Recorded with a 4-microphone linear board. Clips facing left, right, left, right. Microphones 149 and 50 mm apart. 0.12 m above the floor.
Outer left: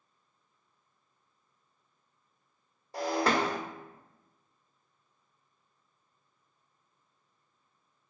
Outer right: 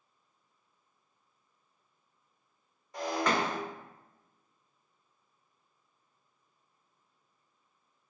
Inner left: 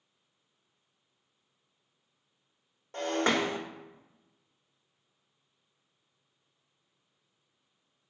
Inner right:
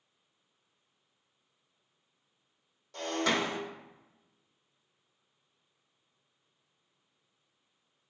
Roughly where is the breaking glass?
Left.